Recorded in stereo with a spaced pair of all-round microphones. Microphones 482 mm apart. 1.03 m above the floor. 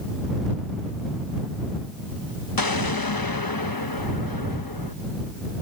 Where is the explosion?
45° left (ahead or behind).